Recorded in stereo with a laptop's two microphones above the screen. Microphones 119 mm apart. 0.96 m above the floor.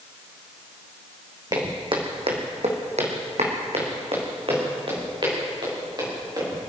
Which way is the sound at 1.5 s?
40° right (ahead or behind).